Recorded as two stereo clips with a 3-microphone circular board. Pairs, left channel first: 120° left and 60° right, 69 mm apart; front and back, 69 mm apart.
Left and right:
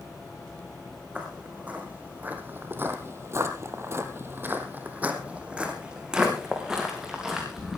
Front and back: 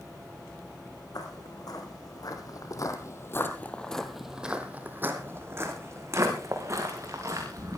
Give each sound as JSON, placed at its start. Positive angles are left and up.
{"t": 1.1, "sound": "footsteps", "azimuth_deg": 10, "distance_m": 4.0}